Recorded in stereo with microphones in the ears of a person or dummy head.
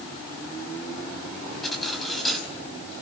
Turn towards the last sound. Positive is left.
turn(degrees=0)  # may be behind; listen again after turning